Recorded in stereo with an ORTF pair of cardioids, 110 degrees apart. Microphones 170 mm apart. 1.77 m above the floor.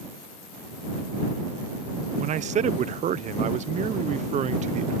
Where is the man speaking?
45° right.